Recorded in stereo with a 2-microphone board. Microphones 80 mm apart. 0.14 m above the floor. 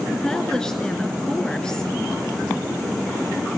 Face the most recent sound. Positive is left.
turn(degrees=10)  # may be behind; listen again after turning